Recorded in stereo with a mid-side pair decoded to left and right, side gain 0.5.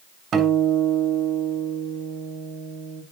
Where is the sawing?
I don't hear sawing.